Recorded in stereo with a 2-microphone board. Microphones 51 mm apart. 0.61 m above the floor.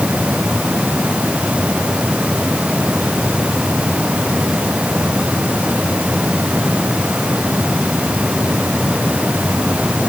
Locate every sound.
Only background noise.